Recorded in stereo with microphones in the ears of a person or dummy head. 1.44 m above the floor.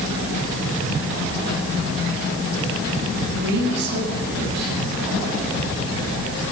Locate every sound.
3.3 s a woman speaking: 60° right (ahead or behind), 10 m